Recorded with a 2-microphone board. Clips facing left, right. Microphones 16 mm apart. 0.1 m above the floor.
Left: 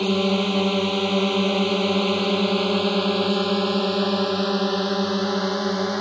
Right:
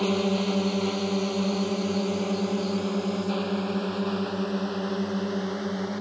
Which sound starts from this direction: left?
A drone, at 0.0 s.